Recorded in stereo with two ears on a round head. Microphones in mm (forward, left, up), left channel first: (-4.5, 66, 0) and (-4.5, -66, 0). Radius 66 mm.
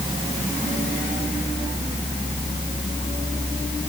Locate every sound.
Only background noise.